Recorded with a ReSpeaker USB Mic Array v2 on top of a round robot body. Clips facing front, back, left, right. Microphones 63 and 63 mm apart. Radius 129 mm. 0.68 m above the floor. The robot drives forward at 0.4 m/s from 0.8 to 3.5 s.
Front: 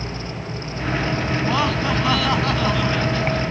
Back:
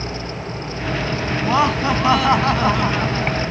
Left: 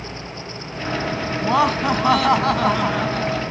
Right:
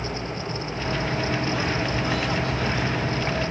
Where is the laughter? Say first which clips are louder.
Back 6 dB, left 7 dB; 110° left; by 3.4 s 115° left.